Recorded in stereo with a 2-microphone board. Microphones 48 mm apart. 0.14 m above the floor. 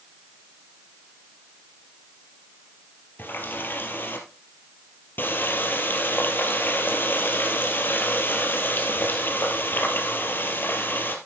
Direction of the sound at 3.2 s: 45° left (ahead or behind).